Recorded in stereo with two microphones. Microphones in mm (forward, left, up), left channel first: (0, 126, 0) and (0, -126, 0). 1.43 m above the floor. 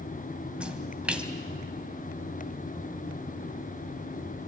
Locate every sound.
0.6 s a splash: 5° right (ahead or behind), 1.8 m